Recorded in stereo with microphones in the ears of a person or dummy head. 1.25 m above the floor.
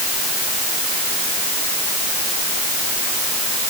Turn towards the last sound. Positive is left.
No sound to turn to.